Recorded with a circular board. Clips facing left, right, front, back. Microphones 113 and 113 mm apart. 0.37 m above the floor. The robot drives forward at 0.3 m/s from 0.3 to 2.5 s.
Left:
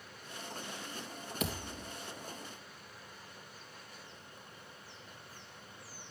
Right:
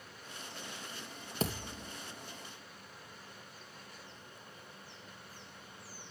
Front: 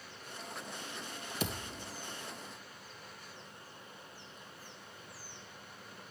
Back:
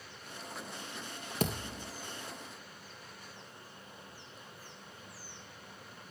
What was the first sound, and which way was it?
A thud, 145° right.